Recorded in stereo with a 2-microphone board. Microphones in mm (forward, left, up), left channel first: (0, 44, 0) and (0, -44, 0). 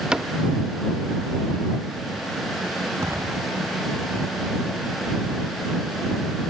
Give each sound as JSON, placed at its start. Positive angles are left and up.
{"t": 0.1, "sound": "a cupboard door", "side_deg": -10}
{"t": 3.0, "sound": "an explosion", "side_deg": -40}